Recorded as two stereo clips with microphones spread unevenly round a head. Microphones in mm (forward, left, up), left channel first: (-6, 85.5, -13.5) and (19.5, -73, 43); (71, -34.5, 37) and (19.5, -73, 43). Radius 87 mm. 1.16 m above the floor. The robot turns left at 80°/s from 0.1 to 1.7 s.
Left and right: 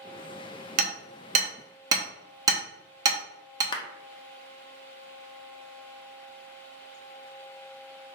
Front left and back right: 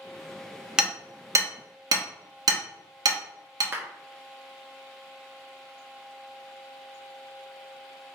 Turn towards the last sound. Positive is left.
turn(degrees=150)